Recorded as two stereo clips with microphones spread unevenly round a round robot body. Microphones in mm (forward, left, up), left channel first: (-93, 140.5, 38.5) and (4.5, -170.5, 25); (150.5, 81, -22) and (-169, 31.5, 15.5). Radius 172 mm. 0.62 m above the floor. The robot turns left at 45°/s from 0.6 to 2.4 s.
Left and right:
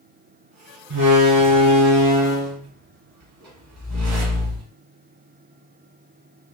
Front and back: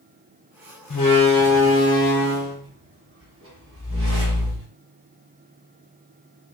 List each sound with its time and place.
0.9 s a door slam: 45° right, 1.1 m; by 4.7 s 115° right, 1.1 m